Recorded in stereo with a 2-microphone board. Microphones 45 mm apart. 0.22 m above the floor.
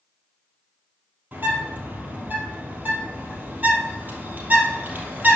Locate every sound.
1.3 s a bird: 35° right (ahead or behind), 2.5 m